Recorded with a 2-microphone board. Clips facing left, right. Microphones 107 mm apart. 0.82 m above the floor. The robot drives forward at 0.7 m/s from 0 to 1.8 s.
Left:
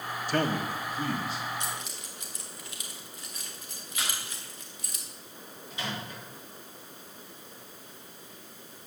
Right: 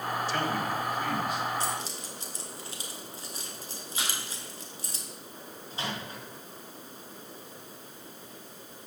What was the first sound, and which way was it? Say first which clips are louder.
A man speaking: left 5 dB; 50° left (ahead or behind).